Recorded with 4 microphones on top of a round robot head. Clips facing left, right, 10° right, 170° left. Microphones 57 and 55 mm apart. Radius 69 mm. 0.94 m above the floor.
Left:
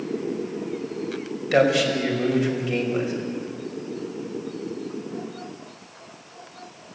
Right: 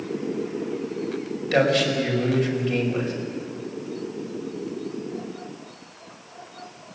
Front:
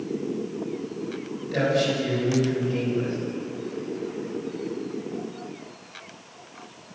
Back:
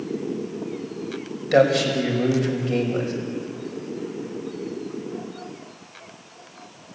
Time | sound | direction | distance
1.5 | a man speaking | 170° left | 6 m